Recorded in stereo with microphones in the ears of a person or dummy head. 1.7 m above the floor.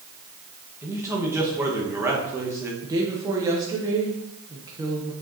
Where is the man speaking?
10° right (ahead or behind), 1.4 m.